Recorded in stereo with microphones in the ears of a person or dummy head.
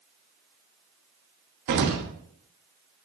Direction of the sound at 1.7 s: 55° right (ahead or behind).